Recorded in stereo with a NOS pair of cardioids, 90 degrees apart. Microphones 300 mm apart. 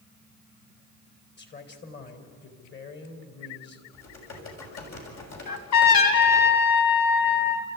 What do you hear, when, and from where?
1.4 s a man speaking: 35° left, 4 m
3.9 s typing on a keyboard: 60° left, 6.5 m
5.5 s a trumpet: 70° left, 3 m